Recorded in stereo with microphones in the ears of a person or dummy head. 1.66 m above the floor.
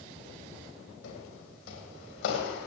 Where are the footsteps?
60° left (ahead or behind), 4 m.